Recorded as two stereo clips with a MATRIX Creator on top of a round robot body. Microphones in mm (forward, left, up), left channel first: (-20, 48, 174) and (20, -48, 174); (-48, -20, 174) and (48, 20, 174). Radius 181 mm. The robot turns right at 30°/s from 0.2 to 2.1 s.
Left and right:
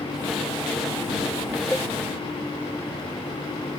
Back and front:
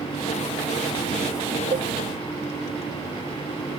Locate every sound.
1.7 s a cowbell: 25° left; by 1.9 s 30° left